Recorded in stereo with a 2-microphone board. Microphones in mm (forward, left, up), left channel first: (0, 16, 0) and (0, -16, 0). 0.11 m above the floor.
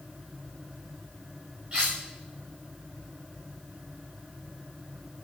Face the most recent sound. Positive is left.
turn(degrees=-30)  # may be behind; listen again after turning